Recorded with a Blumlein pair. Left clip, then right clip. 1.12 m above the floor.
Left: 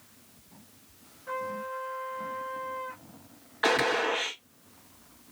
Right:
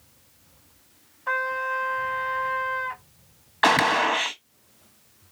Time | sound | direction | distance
1.3 | a trumpet | 50° right | 0.8 m
3.6 | a gunshot | 60° right | 0.9 m